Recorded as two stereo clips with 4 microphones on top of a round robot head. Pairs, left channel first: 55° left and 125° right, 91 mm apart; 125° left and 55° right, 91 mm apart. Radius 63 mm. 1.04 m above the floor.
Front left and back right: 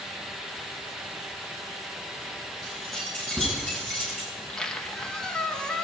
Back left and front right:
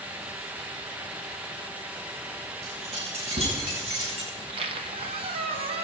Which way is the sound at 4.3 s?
30° right.